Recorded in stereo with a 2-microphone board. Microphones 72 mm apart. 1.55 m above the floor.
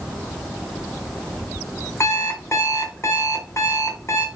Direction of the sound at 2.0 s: 40° left (ahead or behind).